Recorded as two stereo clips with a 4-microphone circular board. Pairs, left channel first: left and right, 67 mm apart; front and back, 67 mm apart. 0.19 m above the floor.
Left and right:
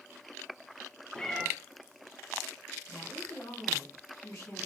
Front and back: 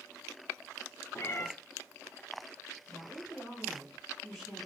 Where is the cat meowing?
15° left, 0.6 m.